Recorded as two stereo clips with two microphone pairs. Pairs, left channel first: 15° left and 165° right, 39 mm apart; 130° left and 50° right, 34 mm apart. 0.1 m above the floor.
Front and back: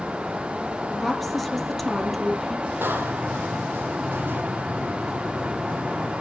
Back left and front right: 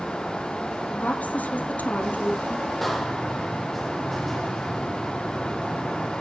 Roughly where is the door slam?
Behind right.